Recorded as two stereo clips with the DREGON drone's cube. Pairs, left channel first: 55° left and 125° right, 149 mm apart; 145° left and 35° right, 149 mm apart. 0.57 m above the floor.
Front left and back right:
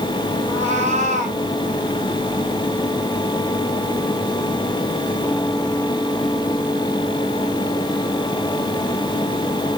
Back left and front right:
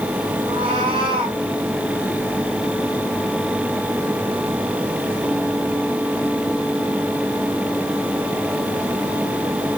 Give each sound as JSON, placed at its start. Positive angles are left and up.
{"t": 0.5, "sound": "a cat meowing", "azimuth_deg": -90, "distance_m": 4.0}